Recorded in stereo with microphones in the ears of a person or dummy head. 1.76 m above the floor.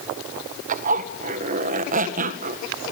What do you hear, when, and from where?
0.7 s a zipper: 50° right (ahead or behind), 2.0 m